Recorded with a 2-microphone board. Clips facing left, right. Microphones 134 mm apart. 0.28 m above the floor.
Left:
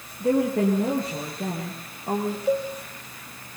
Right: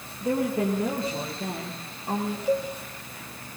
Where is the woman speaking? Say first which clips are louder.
Left 4 dB; 75° left (ahead or behind), 7.5 m; by 2.4 s 55° left (ahead or behind), 8.5 m.